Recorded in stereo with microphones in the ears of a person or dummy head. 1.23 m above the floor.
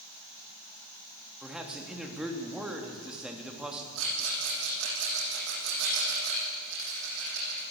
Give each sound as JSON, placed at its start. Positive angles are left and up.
{"t": 1.4, "sound": "a man speaking", "side_deg": -5, "distance_m": 2.5}
{"t": 4.0, "sound": "a rattle", "side_deg": -70, "distance_m": 9.5}